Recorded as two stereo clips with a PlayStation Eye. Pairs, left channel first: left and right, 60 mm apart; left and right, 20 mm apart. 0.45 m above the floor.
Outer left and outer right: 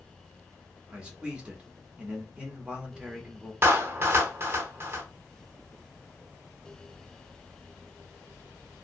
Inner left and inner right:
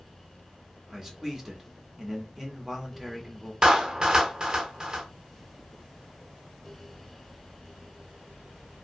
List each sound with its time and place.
0.9 s a man speaking: 20° right (ahead or behind), 0.9 m
3.6 s a clap: 40° right (ahead or behind), 0.6 m